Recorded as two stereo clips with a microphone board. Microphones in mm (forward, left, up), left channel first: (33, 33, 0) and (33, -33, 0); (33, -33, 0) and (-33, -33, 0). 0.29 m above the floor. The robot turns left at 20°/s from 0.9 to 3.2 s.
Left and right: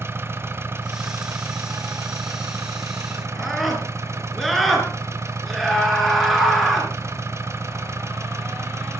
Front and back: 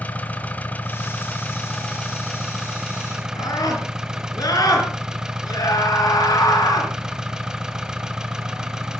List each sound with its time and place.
0.0 s an engine running: 55° right, 1.5 m; by 9.0 s 105° right, 1.5 m
3.4 s a scream: straight ahead, 4.5 m